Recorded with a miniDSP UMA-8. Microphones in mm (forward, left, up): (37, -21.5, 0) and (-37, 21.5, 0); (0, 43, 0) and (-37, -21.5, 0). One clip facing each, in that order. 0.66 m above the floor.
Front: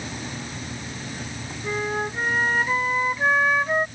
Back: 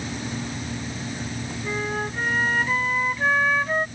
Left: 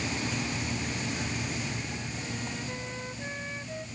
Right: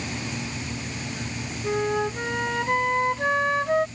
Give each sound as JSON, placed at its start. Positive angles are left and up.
{"t": 1.6, "sound": "a flute", "azimuth_deg": -110}